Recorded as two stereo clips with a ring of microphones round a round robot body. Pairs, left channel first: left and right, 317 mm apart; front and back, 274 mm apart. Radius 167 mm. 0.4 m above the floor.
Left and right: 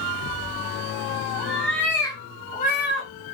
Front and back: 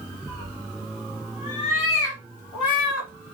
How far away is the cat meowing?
About 1.9 m.